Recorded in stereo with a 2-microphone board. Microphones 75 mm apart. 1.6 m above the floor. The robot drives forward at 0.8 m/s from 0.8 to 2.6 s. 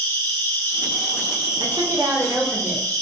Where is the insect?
25° left (ahead or behind), 1.1 m; by 3.0 s 20° left (ahead or behind), 1.4 m.